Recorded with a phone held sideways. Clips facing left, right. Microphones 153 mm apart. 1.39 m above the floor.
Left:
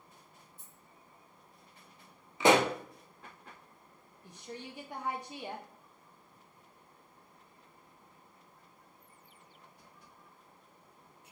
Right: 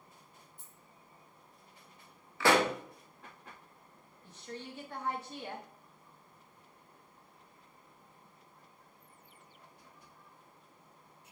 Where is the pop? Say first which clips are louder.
Left 3 dB; 20° left (ahead or behind), 0.5 m.